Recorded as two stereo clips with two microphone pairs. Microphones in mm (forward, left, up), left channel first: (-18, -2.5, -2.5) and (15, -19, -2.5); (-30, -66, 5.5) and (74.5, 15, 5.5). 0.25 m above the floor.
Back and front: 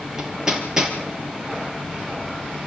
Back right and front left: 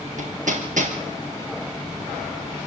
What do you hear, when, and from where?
0.2 s hammering: 50° left, 5 m